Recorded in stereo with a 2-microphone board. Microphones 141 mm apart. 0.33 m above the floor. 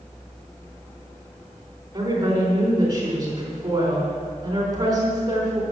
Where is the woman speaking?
30° right (ahead or behind), 4 m.